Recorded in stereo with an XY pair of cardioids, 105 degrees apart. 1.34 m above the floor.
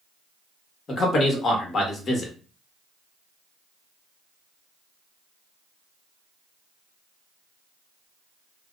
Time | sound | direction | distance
0.9 | a man speaking | 50° left | 1.1 m